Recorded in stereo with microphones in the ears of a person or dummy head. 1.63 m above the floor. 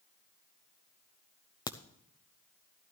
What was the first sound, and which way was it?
A crack, 25° left (ahead or behind).